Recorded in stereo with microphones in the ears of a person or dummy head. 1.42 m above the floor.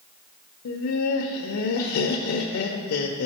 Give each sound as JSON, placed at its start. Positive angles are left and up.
{"t": 0.7, "sound": "laughter", "side_deg": 80, "distance_m": 0.7}